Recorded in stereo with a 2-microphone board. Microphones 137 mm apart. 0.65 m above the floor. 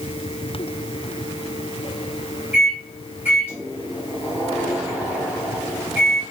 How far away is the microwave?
About 4 m.